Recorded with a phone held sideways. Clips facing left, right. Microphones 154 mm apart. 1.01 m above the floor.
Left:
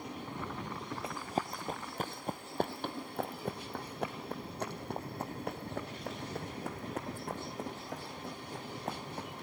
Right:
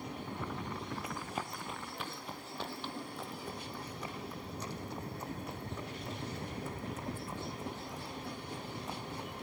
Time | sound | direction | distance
1.0 | running footsteps | 30° left (ahead or behind) | 1.3 m